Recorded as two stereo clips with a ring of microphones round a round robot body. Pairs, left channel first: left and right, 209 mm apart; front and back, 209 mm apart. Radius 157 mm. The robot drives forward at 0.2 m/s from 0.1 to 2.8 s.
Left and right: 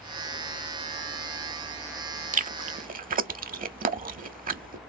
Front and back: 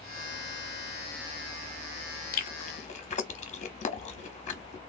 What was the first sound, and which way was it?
Chewing, 40° right.